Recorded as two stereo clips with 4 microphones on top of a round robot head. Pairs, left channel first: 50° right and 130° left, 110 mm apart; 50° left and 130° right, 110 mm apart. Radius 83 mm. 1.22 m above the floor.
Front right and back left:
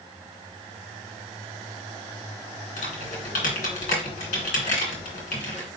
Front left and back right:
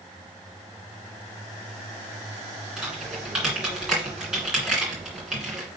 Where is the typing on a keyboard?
45° right, 2.5 m.